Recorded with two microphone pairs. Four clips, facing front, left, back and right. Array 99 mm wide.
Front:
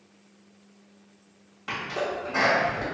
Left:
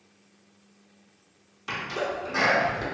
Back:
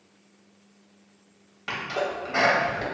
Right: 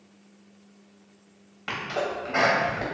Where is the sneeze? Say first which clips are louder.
Right 1 dB, back 1 dB; 120° right, 1.5 m.